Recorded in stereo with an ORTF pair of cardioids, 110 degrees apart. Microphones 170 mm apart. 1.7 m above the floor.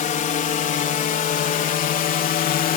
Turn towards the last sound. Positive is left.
turn(degrees=60)